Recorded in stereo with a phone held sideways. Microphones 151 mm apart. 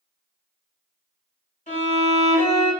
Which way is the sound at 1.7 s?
55° left (ahead or behind).